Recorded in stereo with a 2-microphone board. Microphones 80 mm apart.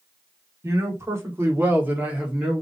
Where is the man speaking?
35° right (ahead or behind), 1.7 m; by 2.6 s 10° right (ahead or behind), 1.3 m.